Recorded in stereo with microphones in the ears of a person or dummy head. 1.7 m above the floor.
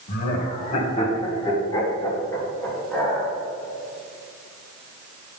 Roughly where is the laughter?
Left.